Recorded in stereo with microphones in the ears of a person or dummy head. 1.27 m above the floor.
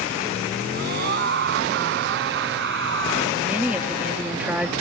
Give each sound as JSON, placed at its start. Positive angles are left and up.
{"t": 0.7, "sound": "a scream", "side_deg": -50}
{"t": 3.4, "sound": "a woman speaking", "side_deg": -5}